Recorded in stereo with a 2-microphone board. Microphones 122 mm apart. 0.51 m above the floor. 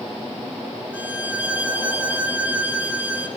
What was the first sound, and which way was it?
A violin, 15° right (ahead or behind).